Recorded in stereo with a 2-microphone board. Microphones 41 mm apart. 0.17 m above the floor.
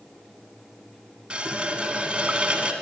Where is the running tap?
30° right (ahead or behind), 0.8 m.